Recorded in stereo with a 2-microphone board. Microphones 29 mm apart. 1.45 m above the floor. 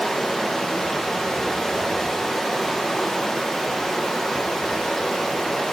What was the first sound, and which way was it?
Running water, 15° left (ahead or behind).